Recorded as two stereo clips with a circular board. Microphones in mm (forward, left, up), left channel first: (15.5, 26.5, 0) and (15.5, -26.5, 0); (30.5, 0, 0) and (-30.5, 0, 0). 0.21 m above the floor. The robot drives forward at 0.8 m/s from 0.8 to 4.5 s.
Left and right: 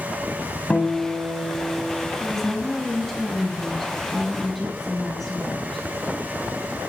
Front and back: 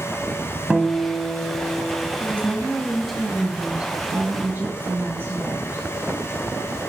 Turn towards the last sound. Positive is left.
turn(degrees=175)